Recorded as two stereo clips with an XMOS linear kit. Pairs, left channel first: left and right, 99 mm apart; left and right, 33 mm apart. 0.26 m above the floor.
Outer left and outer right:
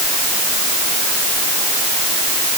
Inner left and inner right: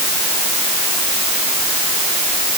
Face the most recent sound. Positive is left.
No sound to turn to.